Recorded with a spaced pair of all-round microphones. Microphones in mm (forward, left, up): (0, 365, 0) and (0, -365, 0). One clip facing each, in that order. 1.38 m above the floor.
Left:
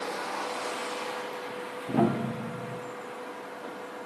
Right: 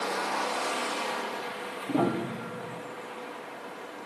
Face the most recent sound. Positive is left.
turn(degrees=40)  # may be behind; listen again after turning